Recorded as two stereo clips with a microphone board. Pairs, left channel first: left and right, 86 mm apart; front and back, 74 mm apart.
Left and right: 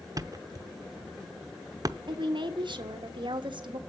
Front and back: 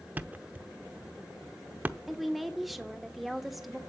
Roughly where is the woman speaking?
Right.